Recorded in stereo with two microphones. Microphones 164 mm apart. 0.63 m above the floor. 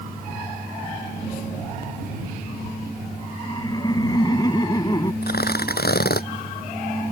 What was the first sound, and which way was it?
Laughter, 25° left (ahead or behind).